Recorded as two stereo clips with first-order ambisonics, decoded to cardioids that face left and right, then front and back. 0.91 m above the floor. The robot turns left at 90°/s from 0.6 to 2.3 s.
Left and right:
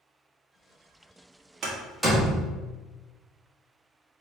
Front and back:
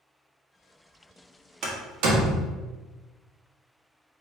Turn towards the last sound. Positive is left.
turn(degrees=160)